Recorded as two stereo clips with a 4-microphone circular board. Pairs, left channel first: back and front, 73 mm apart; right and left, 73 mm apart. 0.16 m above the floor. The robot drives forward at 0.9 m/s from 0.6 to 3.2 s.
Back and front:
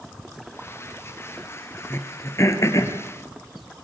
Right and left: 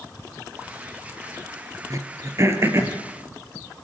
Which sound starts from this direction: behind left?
Throat clearing, at 1.9 s.